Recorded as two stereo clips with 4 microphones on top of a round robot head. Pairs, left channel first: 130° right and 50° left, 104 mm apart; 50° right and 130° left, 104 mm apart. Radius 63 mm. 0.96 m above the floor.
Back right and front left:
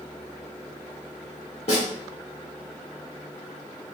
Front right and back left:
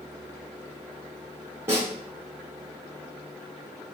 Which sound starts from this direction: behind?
A snare drum, at 1.7 s.